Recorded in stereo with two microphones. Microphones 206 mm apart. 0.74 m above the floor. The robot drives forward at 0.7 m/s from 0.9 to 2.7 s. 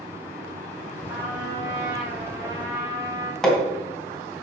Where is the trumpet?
10° right (ahead or behind), 4 m; by 3.3 s 15° right (ahead or behind), 3 m.